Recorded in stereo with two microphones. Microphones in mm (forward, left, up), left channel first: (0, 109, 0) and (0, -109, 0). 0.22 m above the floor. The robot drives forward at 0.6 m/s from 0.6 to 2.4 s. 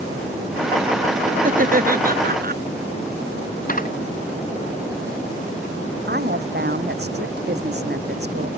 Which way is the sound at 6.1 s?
50° right (ahead or behind).